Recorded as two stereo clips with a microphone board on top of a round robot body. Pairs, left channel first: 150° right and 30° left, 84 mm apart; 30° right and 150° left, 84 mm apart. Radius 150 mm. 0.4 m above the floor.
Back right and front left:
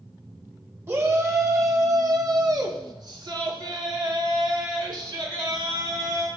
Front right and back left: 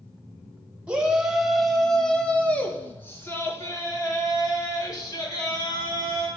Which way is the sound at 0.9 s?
80° left.